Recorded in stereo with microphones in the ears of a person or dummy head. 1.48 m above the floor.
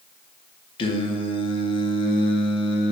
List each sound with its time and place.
0.8 s singing: 30° left (ahead or behind), 0.6 m